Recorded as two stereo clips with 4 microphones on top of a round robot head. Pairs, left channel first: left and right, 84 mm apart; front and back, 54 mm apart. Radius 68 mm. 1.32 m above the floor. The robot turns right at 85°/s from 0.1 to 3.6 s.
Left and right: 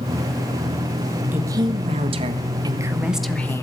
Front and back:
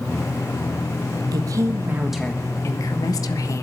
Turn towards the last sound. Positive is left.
turn(degrees=30)